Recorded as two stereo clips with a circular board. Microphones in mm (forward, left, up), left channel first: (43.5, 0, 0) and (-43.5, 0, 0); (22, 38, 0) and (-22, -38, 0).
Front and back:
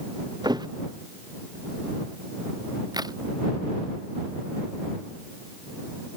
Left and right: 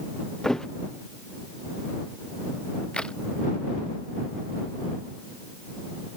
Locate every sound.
0.4 s a thud: 145° left
2.9 s a crack: 140° left